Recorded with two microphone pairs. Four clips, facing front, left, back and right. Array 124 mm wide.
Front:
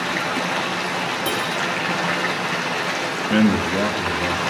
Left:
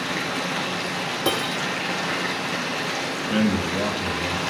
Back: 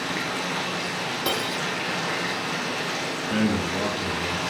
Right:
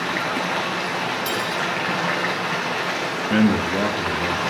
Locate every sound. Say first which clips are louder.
0.0 s running water: right 3 dB, front 5 dB; 45° right, 4.5 m
1.2 s cutlery clinking: even, front 4 dB; 100° left, 4.5 m
3.3 s a man speaking: right 4 dB, front 7 dB; 35° right, 3 m